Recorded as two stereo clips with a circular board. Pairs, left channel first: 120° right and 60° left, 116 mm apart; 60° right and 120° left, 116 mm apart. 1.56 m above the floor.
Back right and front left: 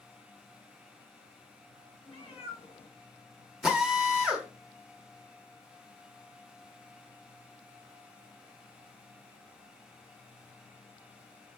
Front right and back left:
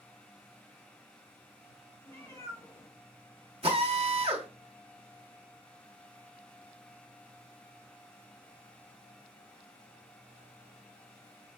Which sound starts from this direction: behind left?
A drill, at 3.6 s.